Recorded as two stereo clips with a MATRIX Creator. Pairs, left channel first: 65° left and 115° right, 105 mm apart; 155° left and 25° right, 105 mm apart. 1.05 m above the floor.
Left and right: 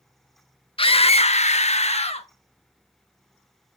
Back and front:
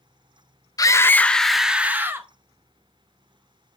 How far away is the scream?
About 0.6 m.